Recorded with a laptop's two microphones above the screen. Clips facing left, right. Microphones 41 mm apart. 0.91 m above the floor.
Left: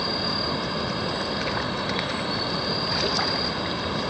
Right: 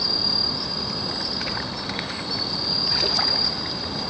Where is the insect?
35° left (ahead or behind).